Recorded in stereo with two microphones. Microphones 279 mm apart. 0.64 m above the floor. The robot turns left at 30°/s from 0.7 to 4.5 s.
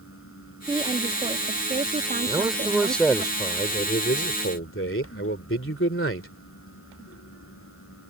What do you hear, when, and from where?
0.7 s a woman speaking: 30° right; by 3.3 s 110° right
2.3 s a man speaking: 165° right; by 6.3 s 130° left